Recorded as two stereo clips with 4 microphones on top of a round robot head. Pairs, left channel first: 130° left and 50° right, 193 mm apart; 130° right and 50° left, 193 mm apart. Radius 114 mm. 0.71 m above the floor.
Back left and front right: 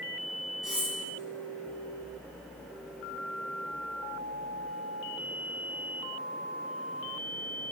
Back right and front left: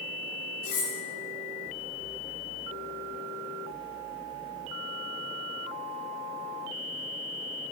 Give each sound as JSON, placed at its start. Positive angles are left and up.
{"t": 0.6, "sound": "cutlery clinking", "azimuth_deg": -135, "distance_m": 0.8}